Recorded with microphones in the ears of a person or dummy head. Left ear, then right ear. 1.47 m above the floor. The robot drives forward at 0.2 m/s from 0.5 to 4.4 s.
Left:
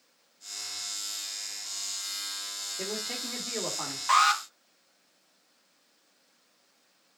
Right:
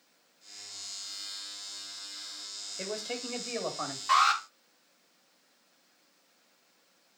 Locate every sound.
2.8 s a man speaking: 10° left (ahead or behind), 2.5 m
4.1 s an alarm: 80° left, 2 m